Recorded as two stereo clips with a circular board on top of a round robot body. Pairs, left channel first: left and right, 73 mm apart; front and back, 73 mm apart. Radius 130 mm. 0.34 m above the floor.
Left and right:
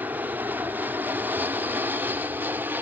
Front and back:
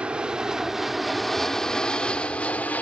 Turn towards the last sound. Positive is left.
turn(degrees=-50)